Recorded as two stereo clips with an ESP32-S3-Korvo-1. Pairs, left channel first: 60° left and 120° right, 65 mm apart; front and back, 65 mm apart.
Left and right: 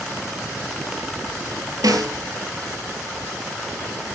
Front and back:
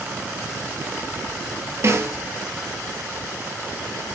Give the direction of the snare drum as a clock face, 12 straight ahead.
5 o'clock.